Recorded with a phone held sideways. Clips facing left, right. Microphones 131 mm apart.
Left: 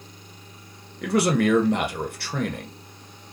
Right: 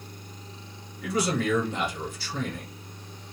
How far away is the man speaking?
About 0.7 m.